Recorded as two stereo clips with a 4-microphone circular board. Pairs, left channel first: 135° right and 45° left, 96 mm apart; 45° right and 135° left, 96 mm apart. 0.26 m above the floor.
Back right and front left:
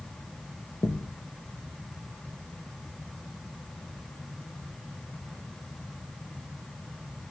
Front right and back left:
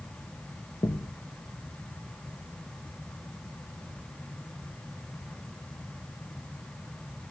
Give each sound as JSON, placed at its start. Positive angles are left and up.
{"t": 0.8, "sound": "a thud", "azimuth_deg": -80, "distance_m": 2.0}